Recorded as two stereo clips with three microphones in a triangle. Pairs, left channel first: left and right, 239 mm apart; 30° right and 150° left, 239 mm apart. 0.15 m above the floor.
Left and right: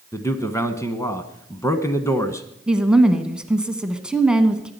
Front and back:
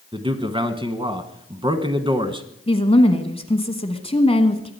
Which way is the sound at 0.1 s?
145° left.